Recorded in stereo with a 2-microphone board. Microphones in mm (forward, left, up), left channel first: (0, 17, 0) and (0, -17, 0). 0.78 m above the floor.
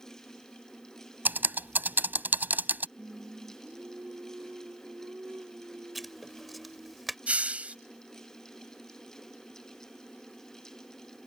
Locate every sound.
1.2 s typing on a keyboard: 75° right (ahead or behind)
3.0 s singing: 75° right (ahead or behind)
6.0 s writing: centre (ahead or behind)
7.3 s a hiss: 45° right (ahead or behind)